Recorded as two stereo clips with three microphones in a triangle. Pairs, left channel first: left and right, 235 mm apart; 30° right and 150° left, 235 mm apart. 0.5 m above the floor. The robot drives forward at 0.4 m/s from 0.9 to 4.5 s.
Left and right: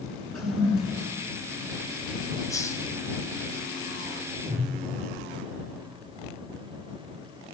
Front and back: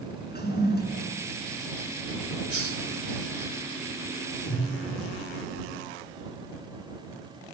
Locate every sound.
0.3 s a toilet flushing: 75° right, 8 m
2.5 s a hiss: 165° left, 2.5 m
4.5 s a whoosh: 30° right, 10 m